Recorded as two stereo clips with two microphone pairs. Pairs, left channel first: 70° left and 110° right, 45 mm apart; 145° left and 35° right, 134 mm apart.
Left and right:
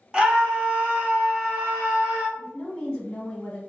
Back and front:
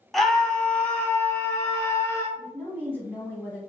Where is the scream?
120° right, 1.0 m; by 2.3 s 150° right, 1.8 m.